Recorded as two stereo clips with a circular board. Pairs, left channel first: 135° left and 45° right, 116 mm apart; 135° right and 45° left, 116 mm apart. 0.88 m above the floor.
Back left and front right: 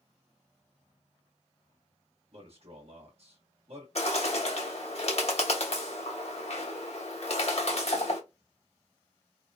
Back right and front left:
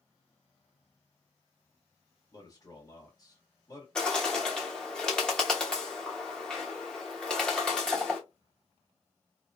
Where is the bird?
145° left, 1.1 m.